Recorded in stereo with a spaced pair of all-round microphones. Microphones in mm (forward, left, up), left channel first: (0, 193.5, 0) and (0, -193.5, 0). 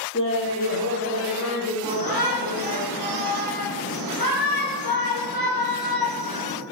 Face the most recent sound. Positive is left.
turn(degrees=65)  # may be behind; listen again after turning